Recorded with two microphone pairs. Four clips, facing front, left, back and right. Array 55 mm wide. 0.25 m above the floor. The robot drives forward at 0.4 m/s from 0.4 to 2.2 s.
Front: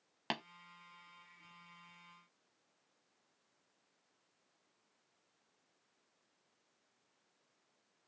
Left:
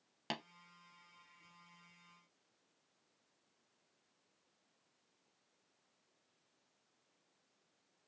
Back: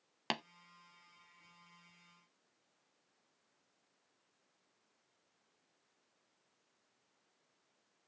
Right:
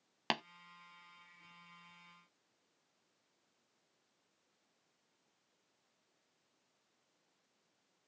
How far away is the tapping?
About 0.5 m.